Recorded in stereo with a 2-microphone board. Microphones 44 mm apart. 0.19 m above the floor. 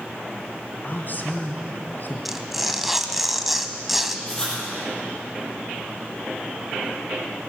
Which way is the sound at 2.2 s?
5° right (ahead or behind).